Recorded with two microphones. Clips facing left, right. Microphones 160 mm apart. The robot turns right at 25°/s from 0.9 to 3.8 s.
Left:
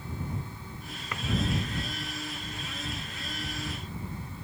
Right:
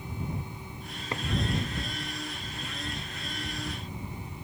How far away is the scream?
No scream in this recording.